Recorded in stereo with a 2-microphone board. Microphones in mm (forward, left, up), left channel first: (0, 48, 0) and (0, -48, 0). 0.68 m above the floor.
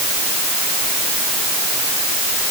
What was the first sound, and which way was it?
Only background noise.